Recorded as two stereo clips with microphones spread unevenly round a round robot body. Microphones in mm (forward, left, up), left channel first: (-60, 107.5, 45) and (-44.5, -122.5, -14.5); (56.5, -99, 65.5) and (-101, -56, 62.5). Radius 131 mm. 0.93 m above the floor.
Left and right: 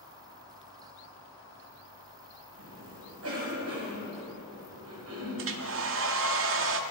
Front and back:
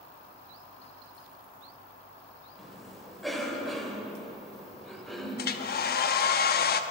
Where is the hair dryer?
40° right, 0.8 m.